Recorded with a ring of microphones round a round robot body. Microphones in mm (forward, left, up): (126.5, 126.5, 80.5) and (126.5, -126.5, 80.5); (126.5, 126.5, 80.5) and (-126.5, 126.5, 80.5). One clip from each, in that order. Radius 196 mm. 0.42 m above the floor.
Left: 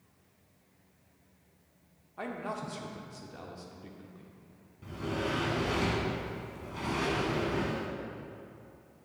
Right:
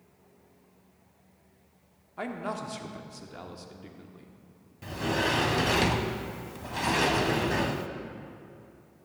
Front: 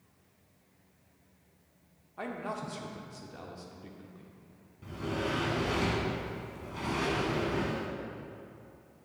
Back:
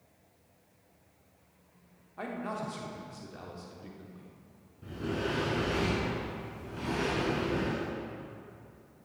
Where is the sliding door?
65° right, 0.6 m.